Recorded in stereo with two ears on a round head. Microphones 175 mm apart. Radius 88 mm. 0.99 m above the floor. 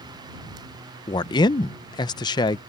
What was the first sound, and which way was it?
A man speaking, 20° left (ahead or behind).